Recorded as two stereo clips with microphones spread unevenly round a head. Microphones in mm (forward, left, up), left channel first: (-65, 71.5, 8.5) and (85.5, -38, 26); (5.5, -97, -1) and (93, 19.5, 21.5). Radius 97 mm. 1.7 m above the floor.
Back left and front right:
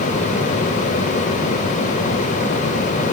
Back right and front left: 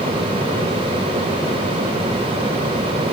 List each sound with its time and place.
Only background noise.